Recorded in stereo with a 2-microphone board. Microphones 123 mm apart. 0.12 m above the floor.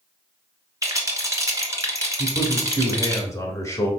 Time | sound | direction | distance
0.8 | a rattle | 25° right (ahead or behind) | 1.0 m
2.2 | a man speaking | 25° left (ahead or behind) | 1.3 m